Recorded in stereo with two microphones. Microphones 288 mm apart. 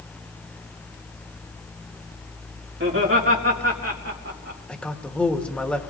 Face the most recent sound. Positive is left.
turn(degrees=5)  # may be behind; listen again after turning